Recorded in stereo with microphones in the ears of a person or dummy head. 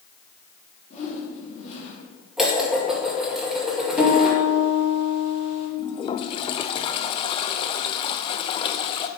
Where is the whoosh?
35° left (ahead or behind), 2.5 m.